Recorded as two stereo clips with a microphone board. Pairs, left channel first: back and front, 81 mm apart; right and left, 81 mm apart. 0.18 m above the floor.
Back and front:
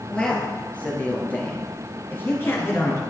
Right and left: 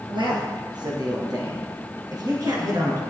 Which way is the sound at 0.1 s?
105° left.